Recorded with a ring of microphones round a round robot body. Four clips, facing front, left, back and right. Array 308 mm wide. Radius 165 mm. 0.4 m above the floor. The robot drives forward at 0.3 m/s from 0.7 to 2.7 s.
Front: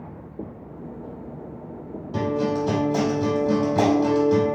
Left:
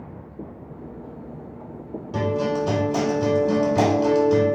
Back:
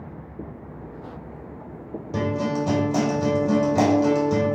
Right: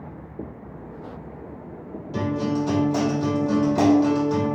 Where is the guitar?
165° left, 3.5 m.